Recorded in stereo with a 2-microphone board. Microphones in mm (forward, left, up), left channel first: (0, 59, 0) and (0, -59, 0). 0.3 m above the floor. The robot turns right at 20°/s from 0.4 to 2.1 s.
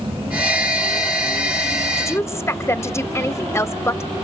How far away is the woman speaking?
About 1.1 m.